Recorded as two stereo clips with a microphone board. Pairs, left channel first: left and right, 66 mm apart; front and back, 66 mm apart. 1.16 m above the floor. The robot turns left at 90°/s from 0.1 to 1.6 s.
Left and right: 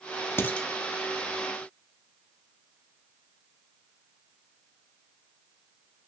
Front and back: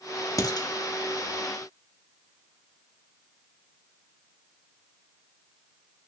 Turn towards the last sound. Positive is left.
turn(degrees=-70)